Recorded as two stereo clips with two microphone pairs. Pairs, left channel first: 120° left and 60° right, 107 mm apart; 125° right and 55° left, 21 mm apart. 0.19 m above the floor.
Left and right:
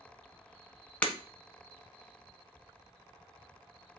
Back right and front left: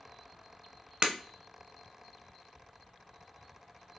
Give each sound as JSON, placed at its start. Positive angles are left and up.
{"t": 1.0, "sound": "breaking glass", "azimuth_deg": 45, "distance_m": 0.9}